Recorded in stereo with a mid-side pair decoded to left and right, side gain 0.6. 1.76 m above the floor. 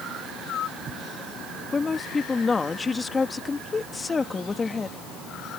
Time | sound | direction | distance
1.7 | a woman speaking | 25° left | ?